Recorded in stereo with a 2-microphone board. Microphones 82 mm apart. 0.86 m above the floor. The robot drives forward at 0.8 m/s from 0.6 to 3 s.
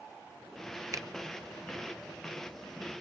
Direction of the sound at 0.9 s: 40° right (ahead or behind).